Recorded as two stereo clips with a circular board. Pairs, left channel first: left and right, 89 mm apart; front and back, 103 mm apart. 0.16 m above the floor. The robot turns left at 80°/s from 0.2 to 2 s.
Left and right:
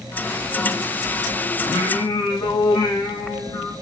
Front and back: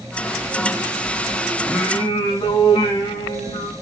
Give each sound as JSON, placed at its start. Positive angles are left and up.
{"t": 1.6, "sound": "singing", "azimuth_deg": 85, "distance_m": 4.0}